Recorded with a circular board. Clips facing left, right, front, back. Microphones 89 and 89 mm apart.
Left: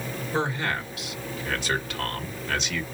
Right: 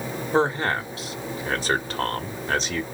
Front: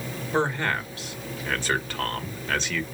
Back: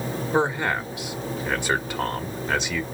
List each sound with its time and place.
0.3 s a man speaking: 115° right, 1.1 m